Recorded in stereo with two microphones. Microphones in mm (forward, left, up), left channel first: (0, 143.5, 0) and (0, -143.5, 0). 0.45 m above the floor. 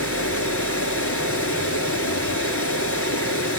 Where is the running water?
50° left (ahead or behind), 3.5 m.